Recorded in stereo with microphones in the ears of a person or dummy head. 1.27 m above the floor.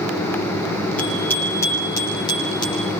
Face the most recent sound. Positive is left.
turn(degrees=25)  # may be behind; listen again after turning